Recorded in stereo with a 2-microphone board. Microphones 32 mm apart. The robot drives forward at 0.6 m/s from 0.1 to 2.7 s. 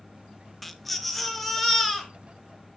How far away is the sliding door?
No sliding door in this recording.